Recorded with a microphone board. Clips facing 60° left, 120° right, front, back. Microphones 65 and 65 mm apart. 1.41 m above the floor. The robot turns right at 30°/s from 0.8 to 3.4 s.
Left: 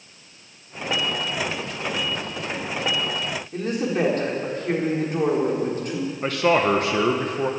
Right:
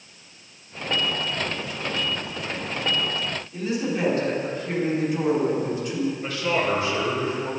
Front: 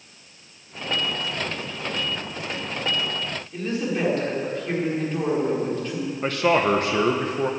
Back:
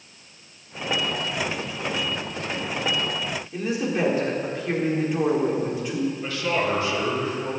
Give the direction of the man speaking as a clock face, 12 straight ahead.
11 o'clock.